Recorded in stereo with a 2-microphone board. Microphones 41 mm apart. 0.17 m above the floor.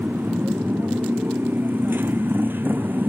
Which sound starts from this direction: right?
A motorcycle, at 0.0 s.